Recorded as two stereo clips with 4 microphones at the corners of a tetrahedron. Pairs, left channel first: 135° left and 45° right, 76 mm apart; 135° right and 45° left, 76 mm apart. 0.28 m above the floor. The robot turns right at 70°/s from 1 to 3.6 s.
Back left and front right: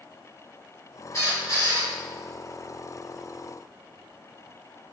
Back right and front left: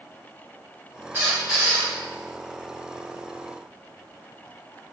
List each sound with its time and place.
1.1 s a squeak: 95° left, 1.5 m; by 1.9 s 150° left, 1.5 m